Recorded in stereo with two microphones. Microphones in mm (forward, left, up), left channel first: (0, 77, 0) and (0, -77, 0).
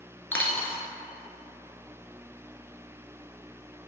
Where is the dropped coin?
10° left (ahead or behind), 0.6 m.